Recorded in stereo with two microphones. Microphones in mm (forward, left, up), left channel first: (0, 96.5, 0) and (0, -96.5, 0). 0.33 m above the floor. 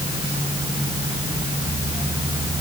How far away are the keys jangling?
No keys jangling in this recording.